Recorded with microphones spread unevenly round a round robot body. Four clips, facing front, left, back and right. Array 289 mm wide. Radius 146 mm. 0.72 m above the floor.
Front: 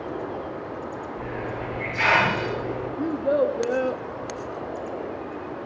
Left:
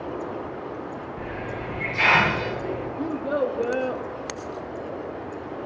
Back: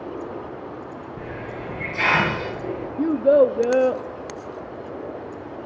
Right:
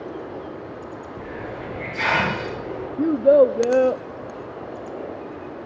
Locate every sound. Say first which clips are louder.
1.2 s a hiss: right 1 dB, front 1 dB; 145° right, 7 m
3.0 s a child speaking: right 12 dB, back 7 dB; 135° right, 0.5 m